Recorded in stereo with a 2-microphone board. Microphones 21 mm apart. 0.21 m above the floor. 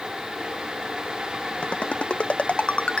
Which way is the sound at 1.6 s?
70° left (ahead or behind).